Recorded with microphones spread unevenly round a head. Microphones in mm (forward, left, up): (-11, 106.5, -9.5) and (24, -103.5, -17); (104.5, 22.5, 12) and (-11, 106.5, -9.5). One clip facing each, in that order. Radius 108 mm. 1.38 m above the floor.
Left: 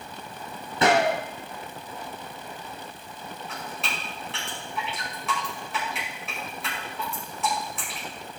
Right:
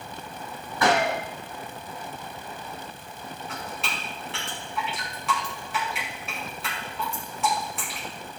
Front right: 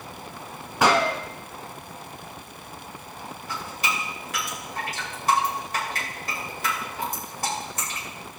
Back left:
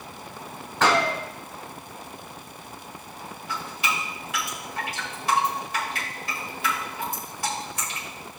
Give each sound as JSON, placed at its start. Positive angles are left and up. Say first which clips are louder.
{"t": 0.8, "sound": "a gunshot", "louder": "left 2 dB, front right 1 dB", "azimuth_deg": 35, "distance_m": 2.5}
{"t": 3.5, "sound": "dripping", "louder": "right 1 dB, back left 1 dB", "azimuth_deg": 10, "distance_m": 5.5}